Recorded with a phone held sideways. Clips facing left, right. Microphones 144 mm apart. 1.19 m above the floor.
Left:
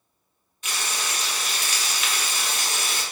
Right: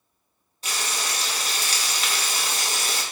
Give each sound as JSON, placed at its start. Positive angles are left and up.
{"t": 0.6, "sound": "frying", "side_deg": -35, "distance_m": 0.9}